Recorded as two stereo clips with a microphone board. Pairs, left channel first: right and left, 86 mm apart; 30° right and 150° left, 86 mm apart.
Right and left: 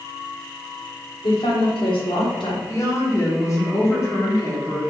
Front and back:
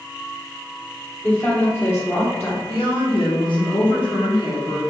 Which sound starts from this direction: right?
A woman speaking, at 1.2 s.